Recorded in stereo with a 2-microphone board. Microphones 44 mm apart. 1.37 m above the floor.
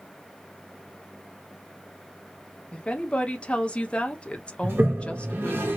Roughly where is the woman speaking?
Left.